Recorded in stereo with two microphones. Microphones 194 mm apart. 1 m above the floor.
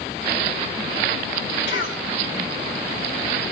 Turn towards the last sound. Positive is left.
turn(degrees=-70)  # may be behind; listen again after turning